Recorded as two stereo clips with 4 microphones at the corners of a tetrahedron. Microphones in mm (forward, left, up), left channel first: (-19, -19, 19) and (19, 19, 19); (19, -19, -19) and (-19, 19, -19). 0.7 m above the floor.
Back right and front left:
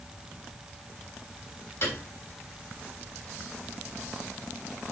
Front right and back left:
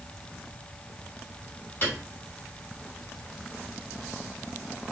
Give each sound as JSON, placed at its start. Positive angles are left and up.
{"t": 1.8, "sound": "a piano", "azimuth_deg": -100, "distance_m": 3.0}